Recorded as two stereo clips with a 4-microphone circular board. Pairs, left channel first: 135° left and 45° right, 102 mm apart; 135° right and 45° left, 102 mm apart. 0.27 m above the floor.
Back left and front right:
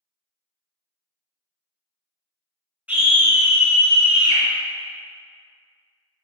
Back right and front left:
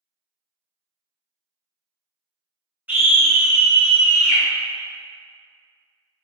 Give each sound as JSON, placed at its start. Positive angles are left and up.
{"t": 2.9, "sound": "a scream", "azimuth_deg": 5, "distance_m": 1.3}